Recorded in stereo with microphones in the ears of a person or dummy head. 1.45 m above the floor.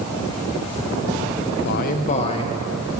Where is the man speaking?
55° left (ahead or behind), 0.9 m; by 3.0 s 20° left (ahead or behind), 2 m.